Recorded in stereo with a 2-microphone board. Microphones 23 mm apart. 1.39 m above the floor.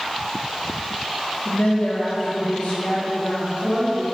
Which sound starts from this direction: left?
A woman speaking, at 1.4 s.